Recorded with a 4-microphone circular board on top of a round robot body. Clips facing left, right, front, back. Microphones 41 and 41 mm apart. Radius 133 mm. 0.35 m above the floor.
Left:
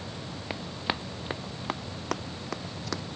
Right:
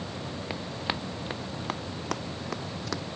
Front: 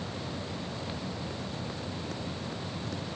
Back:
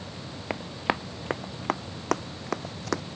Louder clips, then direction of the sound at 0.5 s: Left 2 dB, back 8 dB; 175° left.